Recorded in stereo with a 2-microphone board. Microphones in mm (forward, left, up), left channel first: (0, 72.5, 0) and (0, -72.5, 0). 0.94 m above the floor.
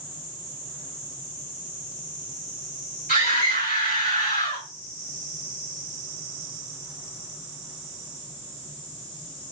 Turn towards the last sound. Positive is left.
turn(degrees=80)